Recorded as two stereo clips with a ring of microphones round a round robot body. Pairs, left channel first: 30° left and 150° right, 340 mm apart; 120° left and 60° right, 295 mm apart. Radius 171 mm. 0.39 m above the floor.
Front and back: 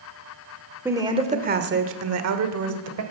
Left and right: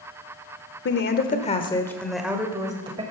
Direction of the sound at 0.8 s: 130° left.